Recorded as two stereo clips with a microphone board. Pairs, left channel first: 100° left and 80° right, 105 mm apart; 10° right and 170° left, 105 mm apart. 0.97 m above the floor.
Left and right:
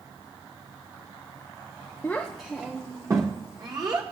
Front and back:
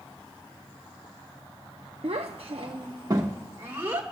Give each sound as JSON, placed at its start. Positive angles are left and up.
{"t": 2.0, "sound": "a child speaking", "azimuth_deg": 170, "distance_m": 0.7}